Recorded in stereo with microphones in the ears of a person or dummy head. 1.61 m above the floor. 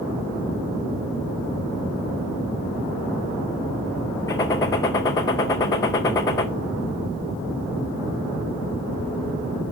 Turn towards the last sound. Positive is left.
turn(degrees=20)  # may be behind; listen again after turning